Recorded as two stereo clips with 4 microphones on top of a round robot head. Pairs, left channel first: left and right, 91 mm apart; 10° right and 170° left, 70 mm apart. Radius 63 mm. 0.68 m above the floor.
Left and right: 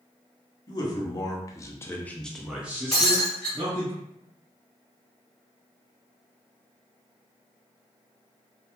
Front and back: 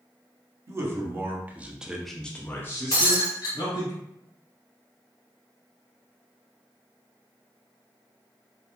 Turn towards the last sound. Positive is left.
turn(degrees=5)